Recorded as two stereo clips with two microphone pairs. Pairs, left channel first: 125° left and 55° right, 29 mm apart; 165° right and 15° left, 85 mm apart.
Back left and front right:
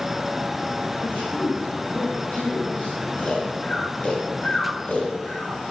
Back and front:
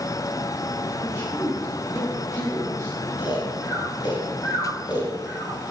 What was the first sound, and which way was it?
A man speaking, 145° left.